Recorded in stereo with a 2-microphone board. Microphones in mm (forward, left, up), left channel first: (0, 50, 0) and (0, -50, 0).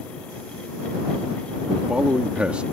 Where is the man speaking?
10° right (ahead or behind).